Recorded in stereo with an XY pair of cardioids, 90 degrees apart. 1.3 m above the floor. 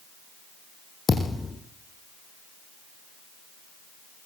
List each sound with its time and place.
1.1 s a thud: 30° left, 5 m